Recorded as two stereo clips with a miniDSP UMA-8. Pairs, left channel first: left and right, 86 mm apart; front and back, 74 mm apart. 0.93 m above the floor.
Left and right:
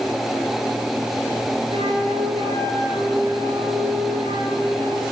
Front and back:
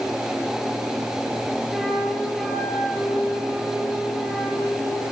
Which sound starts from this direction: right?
A flute, at 1.7 s.